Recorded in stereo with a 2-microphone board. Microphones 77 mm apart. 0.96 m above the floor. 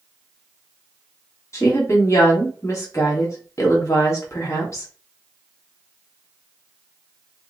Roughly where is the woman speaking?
Left.